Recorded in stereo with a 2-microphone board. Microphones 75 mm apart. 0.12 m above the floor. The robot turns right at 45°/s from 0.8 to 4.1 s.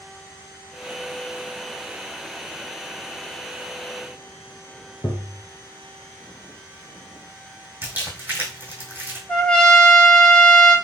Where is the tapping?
30° left (ahead or behind), 0.6 m.